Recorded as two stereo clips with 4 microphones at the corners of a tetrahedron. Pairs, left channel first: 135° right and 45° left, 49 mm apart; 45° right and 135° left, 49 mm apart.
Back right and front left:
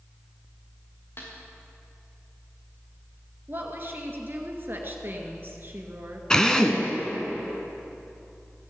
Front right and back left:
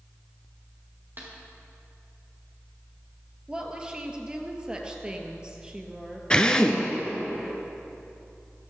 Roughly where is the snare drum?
Behind.